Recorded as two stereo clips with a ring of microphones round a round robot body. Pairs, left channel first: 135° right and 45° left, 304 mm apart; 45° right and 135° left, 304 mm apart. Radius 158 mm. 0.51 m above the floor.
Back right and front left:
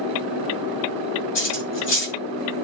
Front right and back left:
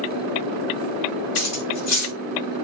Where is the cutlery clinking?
85° right, 2 m.